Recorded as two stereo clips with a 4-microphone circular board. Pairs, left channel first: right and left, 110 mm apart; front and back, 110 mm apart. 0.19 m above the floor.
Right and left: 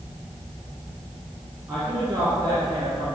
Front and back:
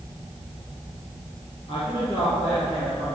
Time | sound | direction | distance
1.7 | a woman speaking | 25° left | 2.5 m